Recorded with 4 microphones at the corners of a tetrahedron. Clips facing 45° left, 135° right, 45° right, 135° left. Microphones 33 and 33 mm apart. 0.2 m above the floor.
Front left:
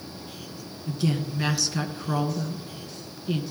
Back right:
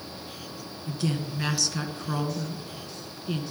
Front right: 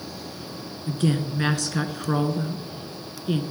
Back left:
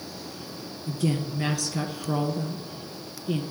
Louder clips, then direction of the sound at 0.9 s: Front left 3 dB, front right 3 dB; 35° right.